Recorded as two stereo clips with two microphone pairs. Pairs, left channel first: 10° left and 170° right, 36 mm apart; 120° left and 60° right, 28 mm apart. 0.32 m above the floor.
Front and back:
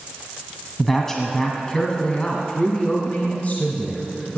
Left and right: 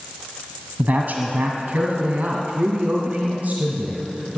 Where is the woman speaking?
70° right, 1.9 m; by 4.4 s 25° right, 2.5 m.